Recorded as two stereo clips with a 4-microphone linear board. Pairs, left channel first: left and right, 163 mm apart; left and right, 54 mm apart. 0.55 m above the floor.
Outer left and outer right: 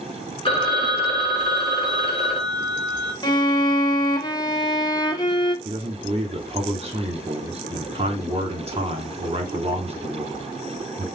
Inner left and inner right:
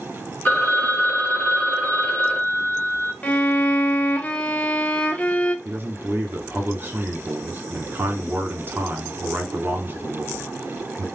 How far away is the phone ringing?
About 1.2 m.